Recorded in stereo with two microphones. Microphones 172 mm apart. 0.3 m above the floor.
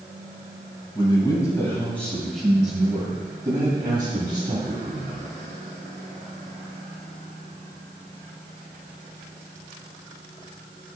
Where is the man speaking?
25° left (ahead or behind), 1.7 m; by 5.2 s 40° right (ahead or behind), 2.5 m.